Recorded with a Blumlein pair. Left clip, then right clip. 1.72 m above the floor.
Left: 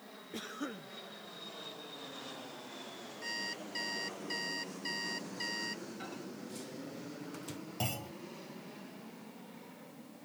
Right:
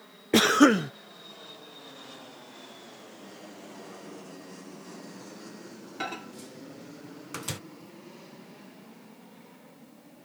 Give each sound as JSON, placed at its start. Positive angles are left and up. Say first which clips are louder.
{"t": 0.3, "sound": "a cough", "louder": "right 23 dB", "azimuth_deg": -50}
{"t": 3.2, "sound": "an alarm clock", "louder": "left 11 dB", "azimuth_deg": 40}
{"t": 6.0, "sound": "a microwave", "louder": "right 9 dB", "azimuth_deg": -35}
{"t": 7.8, "sound": "a clunk", "louder": "left 9 dB", "azimuth_deg": 45}